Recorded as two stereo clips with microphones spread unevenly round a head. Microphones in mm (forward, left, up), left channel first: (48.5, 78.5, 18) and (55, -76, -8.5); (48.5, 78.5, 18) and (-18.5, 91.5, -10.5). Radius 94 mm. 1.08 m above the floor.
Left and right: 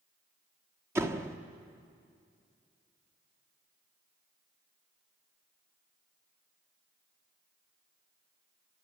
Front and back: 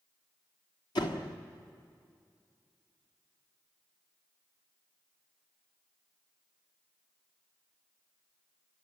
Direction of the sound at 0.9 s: 15° right.